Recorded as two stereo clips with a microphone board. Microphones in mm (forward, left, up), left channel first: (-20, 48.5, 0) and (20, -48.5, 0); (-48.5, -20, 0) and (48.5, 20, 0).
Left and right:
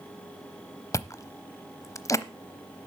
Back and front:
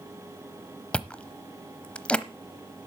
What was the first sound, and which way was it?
Chewing, 135° left.